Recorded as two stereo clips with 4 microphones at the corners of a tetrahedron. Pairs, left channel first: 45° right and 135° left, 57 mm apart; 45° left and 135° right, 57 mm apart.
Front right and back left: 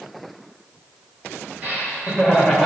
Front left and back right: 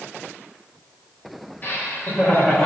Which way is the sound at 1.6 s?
85° left.